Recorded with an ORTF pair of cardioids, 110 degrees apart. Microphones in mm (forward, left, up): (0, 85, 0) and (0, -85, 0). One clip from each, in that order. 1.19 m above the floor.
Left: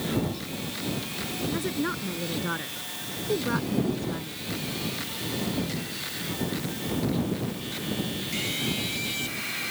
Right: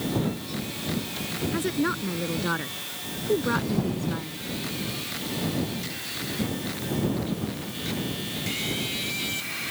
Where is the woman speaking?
20° right.